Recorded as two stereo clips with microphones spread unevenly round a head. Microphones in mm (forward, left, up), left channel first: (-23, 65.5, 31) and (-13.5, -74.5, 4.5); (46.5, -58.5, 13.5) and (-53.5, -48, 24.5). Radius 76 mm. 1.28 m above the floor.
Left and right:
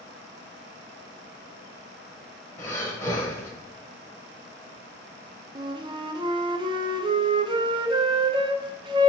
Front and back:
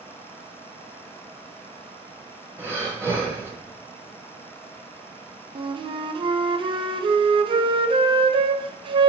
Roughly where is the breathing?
Behind left.